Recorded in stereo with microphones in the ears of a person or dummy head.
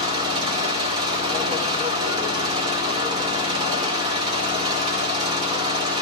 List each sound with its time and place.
0.0 s an engine running: 25° right (ahead or behind), 2 m